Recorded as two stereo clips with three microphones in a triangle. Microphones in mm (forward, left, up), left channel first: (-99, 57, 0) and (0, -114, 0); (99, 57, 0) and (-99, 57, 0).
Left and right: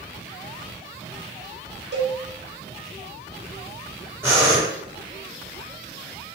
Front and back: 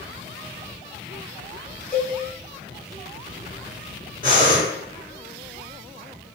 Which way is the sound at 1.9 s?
85° right.